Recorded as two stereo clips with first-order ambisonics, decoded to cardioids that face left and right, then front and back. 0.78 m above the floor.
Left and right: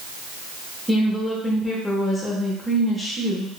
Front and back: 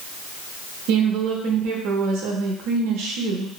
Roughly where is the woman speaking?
Behind.